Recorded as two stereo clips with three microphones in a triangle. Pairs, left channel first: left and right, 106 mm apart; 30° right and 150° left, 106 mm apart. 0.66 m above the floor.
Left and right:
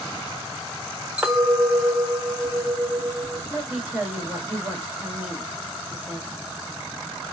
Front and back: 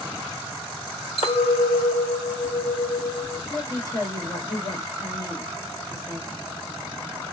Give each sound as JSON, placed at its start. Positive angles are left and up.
{"t": 1.2, "sound": "a clink", "azimuth_deg": -10, "distance_m": 1.1}
{"t": 3.5, "sound": "a woman speaking", "azimuth_deg": -20, "distance_m": 1.3}